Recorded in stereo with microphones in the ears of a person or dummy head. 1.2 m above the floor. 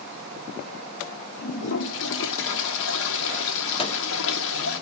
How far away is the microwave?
About 1.1 m.